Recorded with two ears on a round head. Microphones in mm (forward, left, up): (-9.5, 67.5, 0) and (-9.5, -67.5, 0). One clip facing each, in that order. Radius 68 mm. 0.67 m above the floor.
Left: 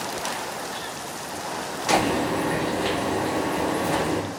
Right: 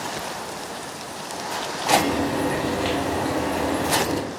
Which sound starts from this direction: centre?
Frying, at 1.9 s.